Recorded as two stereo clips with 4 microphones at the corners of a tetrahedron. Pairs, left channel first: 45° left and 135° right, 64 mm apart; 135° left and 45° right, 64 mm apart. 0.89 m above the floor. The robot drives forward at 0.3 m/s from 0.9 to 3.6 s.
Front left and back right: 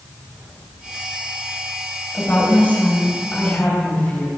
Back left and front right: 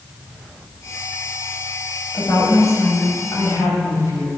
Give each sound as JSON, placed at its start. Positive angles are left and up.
{"t": 2.1, "sound": "a woman speaking", "azimuth_deg": 105, "distance_m": 5.5}